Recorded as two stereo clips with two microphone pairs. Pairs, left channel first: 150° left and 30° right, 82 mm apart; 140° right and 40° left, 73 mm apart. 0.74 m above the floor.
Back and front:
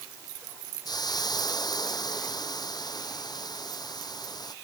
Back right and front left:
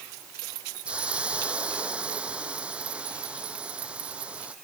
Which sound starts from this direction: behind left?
A hiss, at 0.8 s.